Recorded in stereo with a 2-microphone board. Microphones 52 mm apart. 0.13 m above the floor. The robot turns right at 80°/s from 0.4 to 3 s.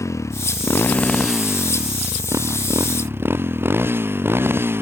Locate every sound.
0.0 s a motorcycle: 75° left (ahead or behind); by 4.8 s 50° right (ahead or behind)